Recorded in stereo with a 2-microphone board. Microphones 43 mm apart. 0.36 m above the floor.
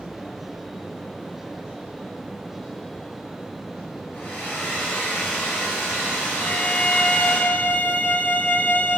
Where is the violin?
55° left (ahead or behind), 0.5 m.